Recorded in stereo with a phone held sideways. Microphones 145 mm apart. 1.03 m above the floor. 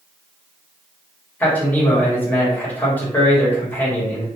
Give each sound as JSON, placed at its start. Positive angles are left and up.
{"t": 1.4, "sound": "a man speaking", "side_deg": 10, "distance_m": 1.5}